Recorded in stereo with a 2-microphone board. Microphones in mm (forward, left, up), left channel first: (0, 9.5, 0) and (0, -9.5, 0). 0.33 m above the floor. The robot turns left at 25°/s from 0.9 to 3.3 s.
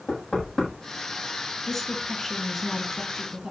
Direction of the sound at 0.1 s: 35° left (ahead or behind).